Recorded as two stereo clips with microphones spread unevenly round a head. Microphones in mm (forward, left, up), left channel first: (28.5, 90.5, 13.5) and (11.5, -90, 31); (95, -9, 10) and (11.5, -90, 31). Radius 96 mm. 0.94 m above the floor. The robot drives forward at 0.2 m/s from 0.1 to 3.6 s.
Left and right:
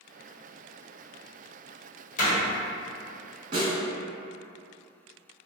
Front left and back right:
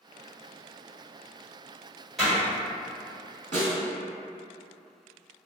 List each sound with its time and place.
2.2 s a door slam: 130° left, 1.3 m
3.5 s a snare drum: 140° right, 1.3 m